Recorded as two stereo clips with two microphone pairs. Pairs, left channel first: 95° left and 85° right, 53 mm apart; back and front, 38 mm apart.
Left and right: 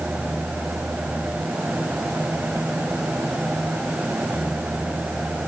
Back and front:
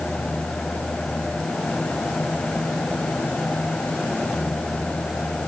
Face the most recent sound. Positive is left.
No sound to turn to.